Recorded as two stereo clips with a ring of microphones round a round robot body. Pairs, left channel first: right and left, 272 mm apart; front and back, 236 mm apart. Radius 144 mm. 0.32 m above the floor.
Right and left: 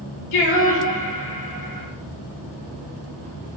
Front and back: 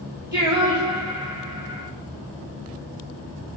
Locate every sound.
0.3 s singing: 100° right, 1.8 m